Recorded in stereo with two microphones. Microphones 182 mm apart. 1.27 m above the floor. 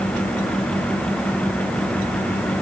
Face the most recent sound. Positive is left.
No sound to turn to.